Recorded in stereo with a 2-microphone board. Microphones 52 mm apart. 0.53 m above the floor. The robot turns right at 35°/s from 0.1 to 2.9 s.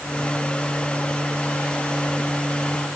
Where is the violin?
No violin in this recording.